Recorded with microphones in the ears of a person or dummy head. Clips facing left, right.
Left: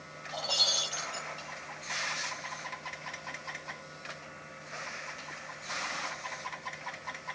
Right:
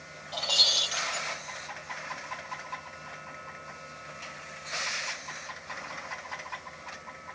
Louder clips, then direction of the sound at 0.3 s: Right 1 dB; 35° right (ahead or behind).